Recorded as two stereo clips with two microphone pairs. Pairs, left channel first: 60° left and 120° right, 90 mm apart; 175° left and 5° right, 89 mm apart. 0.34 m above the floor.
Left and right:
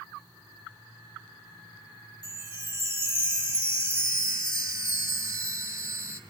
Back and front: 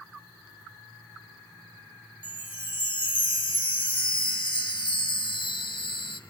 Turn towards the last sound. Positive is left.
turn(degrees=-175)